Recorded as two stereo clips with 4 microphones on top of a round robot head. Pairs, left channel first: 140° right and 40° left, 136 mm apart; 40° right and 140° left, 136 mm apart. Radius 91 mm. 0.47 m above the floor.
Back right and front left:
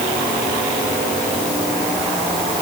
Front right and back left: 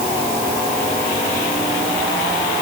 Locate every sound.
Only background noise.